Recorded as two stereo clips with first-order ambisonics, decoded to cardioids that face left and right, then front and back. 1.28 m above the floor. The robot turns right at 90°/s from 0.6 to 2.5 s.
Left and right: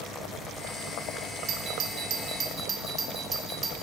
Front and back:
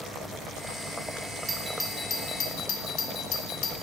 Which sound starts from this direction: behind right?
A doorbell, at 1.5 s.